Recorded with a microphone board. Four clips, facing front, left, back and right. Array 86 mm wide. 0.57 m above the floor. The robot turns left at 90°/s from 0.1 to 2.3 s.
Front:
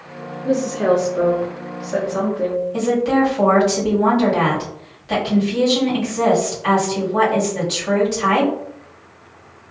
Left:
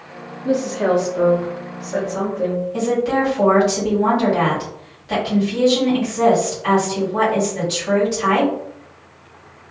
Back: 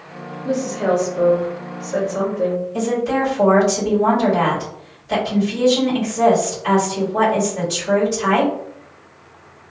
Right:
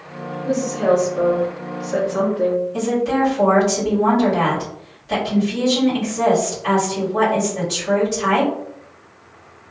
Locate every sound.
0.5 s a woman speaking: 110° left, 1.0 m; by 2.6 s 60° right, 1.0 m
2.7 s a woman speaking: 15° left, 1.7 m